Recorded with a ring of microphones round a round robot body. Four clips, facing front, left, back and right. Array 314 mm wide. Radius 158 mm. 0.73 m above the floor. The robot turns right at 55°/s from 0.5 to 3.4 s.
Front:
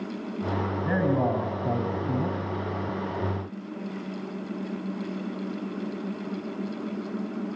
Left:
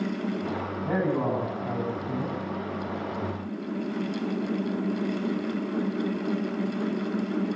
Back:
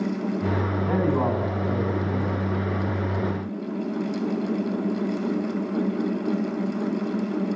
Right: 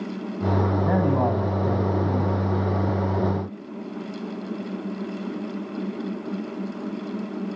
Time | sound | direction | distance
0.8 | a man speaking | 75° right | 6 m